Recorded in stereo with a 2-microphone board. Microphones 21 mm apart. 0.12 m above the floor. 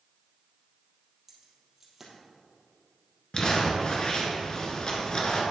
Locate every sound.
1.3 s keys jangling: 15° right (ahead or behind), 2.5 m
3.3 s crumpling: 40° left (ahead or behind), 1.5 m